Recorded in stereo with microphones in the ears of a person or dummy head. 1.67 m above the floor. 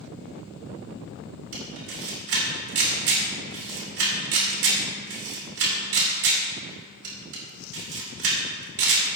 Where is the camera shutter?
75° right (ahead or behind), 3.5 m.